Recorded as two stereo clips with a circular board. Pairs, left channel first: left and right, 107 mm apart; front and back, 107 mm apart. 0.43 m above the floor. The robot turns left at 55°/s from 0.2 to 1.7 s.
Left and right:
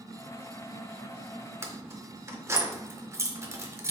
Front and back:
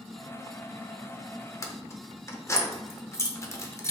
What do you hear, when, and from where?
1.6 s keys jangling: 40° right, 0.6 m; by 3.9 s 45° right, 0.6 m